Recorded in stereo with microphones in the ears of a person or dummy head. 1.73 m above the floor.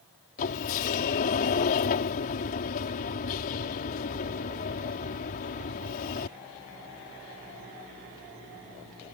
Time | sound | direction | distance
0.4 | a sliding door | 45° left (ahead or behind) | ?